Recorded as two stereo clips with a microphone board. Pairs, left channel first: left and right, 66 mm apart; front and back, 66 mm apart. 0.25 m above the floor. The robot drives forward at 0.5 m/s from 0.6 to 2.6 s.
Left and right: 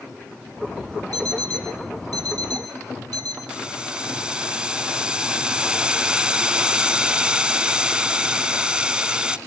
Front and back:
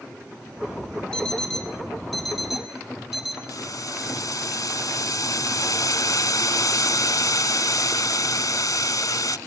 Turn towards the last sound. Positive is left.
turn(degrees=-15)